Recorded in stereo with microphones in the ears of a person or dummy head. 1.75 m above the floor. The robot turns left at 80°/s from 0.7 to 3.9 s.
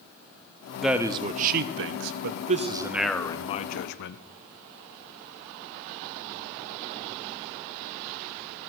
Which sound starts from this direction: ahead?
A man speaking, at 0.8 s.